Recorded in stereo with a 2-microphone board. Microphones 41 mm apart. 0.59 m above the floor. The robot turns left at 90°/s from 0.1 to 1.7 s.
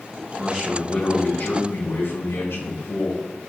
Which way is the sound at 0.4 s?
155° right.